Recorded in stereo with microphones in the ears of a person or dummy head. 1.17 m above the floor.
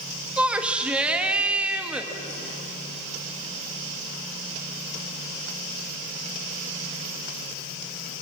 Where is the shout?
10° right (ahead or behind), 1.5 m.